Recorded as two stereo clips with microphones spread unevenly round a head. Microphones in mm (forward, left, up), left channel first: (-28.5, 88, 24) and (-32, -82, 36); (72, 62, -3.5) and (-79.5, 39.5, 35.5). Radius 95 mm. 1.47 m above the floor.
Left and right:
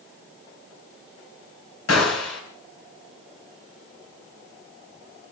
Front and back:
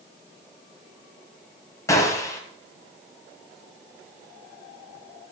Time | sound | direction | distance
1.9 | a gunshot | 80° left | 4 m